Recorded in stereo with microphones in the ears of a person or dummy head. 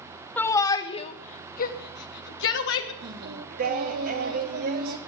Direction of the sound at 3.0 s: 50° right (ahead or behind).